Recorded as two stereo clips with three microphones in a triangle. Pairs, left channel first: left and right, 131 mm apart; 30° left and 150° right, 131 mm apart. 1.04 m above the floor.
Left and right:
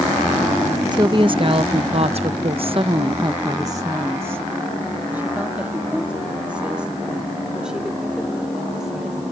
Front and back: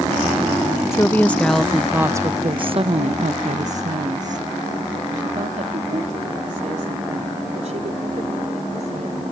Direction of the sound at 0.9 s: 40° right.